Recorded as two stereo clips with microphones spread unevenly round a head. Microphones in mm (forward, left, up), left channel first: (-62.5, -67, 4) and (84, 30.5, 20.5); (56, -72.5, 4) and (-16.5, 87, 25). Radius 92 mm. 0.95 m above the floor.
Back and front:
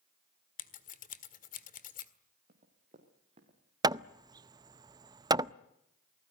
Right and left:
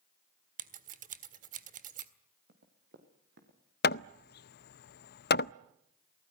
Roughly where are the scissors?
Behind.